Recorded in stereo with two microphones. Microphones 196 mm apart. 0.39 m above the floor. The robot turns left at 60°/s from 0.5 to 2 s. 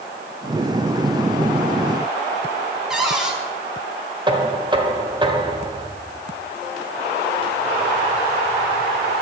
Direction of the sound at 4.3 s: 25° right (ahead or behind).